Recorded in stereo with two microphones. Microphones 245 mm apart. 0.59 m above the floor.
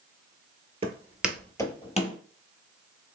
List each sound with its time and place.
0.8 s footsteps: 25° right (ahead or behind), 0.7 m; by 2.2 s 30° left (ahead or behind), 1.0 m